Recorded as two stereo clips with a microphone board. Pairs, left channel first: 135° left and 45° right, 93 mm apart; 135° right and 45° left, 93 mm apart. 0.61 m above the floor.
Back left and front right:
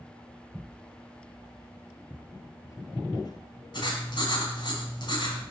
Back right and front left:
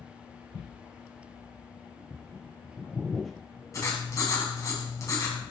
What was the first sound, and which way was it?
Footsteps, 75° left.